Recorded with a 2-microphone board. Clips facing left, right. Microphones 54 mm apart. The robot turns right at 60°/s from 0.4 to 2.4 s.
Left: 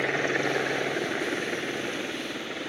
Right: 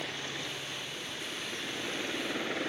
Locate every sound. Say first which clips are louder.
0.0 s a helicopter: left 13 dB; 60° left; by 2.7 s straight behind